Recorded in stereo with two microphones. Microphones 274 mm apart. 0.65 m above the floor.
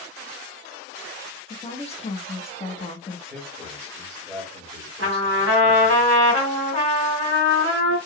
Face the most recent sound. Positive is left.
turn(degrees=-50)  # may be behind; listen again after turning